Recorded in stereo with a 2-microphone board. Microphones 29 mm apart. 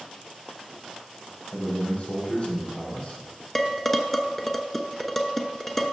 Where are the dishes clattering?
10° left (ahead or behind), 0.8 m.